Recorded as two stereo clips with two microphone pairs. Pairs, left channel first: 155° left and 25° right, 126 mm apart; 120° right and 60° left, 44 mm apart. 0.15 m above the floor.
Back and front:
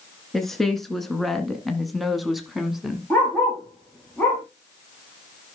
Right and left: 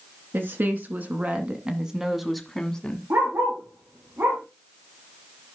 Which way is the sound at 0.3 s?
70° left.